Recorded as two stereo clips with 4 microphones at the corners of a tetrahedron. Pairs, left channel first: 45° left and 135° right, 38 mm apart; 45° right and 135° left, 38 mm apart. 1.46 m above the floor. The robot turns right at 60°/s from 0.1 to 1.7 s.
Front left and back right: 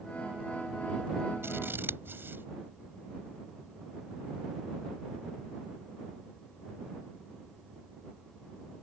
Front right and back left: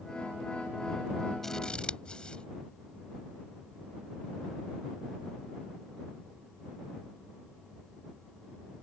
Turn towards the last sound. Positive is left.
turn(degrees=-110)